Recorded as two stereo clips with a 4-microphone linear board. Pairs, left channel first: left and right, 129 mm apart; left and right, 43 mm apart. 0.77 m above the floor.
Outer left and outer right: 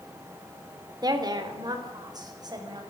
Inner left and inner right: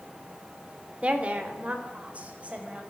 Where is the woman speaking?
35° right (ahead or behind), 3 m.